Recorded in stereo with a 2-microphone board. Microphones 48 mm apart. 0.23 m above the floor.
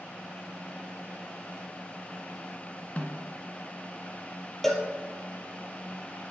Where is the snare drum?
30° left (ahead or behind), 2 m.